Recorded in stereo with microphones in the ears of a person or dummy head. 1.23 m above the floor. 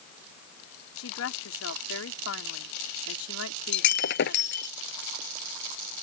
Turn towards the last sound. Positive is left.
turn(degrees=65)  # may be behind; listen again after turning